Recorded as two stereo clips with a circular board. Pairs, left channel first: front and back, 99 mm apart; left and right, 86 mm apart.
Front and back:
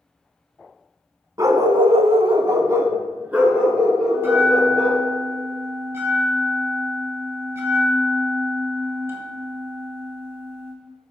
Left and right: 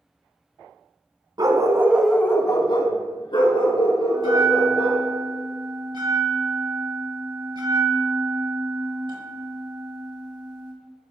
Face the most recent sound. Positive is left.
turn(degrees=-115)